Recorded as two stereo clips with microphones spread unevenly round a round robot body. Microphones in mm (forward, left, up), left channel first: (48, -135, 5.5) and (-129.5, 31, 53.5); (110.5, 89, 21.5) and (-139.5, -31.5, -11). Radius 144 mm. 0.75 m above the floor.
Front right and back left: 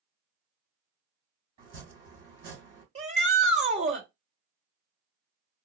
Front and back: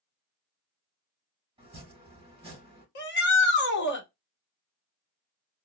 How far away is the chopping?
About 3 m.